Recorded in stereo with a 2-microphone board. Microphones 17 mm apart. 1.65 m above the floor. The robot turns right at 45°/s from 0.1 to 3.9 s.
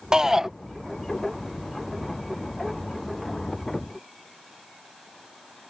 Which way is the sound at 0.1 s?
45° right (ahead or behind).